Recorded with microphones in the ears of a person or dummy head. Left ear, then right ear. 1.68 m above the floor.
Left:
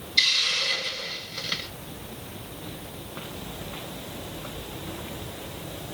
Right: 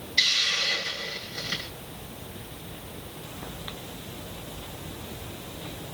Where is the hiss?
30° left (ahead or behind), 3 m.